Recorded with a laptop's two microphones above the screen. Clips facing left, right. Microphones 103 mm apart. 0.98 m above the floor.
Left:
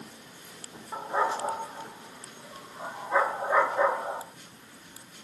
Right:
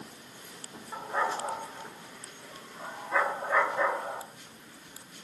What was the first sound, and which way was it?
A dog barking, 20° left (ahead or behind).